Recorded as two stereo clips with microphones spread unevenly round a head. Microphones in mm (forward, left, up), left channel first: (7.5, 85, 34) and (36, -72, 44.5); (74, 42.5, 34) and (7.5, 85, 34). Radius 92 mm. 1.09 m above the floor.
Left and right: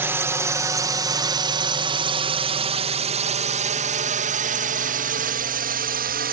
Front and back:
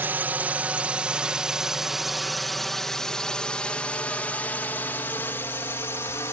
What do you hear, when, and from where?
0.0 s a drone: 155° right; by 6.3 s 90° right